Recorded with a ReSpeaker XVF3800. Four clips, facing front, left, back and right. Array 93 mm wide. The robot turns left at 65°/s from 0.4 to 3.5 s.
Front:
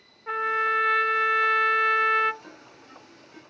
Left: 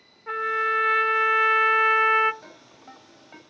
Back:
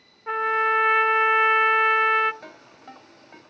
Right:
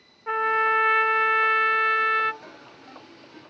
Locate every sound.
0.3 s a trumpet: 125° right, 0.5 m; by 2.3 s 110° left, 0.5 m
2.4 s a ringtone: straight behind, 6.5 m; by 3.4 s 115° left, 6.5 m